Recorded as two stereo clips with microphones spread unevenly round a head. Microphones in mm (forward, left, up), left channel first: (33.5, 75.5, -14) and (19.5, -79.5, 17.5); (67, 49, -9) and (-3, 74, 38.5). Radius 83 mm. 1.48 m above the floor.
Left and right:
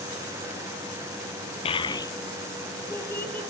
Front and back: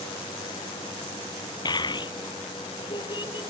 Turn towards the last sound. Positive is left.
turn(degrees=5)